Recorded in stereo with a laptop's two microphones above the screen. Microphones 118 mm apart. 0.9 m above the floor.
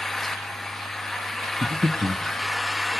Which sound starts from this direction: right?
Breathing, at 1.6 s.